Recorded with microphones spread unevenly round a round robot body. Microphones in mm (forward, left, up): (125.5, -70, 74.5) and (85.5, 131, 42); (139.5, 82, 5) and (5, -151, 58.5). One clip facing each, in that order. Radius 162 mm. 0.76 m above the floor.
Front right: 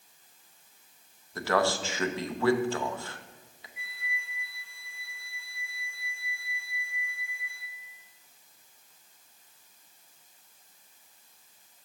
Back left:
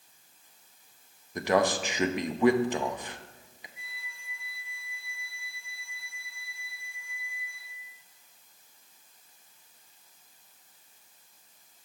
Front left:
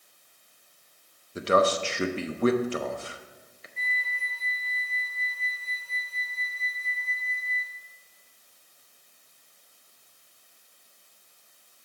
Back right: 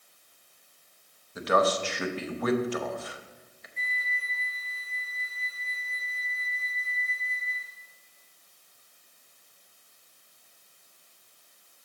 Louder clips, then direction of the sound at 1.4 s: Back left 2 dB, front left 2 dB; 45° left.